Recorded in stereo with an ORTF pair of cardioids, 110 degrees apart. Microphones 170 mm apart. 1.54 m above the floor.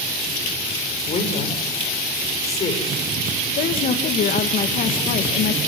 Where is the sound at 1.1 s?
40° left, 6 m.